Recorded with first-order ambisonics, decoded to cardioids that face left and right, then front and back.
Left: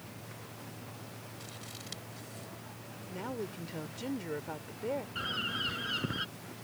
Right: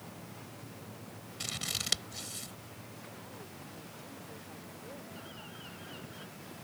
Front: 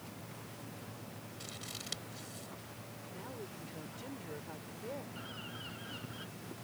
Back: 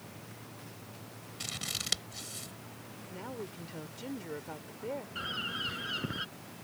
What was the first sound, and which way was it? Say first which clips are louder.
Scissors: right 14 dB, back 10 dB; 125° right.